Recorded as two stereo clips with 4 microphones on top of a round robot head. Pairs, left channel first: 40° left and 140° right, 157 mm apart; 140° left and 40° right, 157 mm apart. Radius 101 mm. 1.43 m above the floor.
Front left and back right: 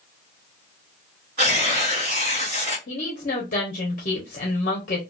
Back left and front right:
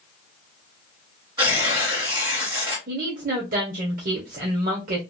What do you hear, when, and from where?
1.4 s tearing paper: 95° right, 1.5 m
2.9 s a woman speaking: straight ahead, 0.7 m